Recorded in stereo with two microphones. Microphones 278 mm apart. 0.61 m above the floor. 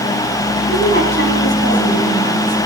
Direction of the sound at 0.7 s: 45° right (ahead or behind).